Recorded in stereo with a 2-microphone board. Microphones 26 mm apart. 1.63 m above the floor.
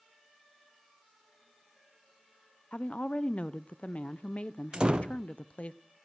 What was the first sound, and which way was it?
A woman speaking, 65° left (ahead or behind).